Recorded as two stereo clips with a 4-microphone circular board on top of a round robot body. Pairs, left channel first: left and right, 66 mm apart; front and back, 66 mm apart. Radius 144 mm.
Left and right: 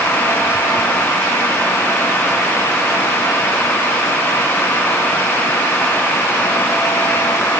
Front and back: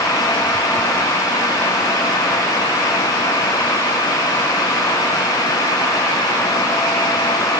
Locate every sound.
Only background noise.